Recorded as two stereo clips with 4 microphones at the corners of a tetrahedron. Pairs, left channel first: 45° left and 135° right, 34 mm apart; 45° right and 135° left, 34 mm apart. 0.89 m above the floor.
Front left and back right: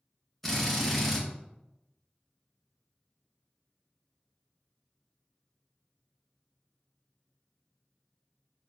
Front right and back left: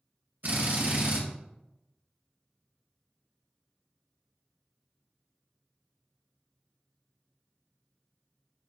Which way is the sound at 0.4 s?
130° left.